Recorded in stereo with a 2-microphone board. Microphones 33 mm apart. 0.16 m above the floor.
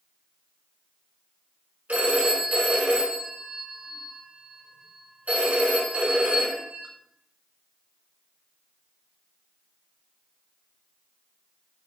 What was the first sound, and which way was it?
A phone ringing, 45° right (ahead or behind).